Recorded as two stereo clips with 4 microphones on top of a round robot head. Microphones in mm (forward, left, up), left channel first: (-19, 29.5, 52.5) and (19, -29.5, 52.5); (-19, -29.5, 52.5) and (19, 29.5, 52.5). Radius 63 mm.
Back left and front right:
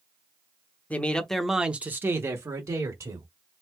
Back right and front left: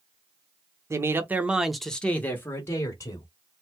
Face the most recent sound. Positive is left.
turn(degrees=-85)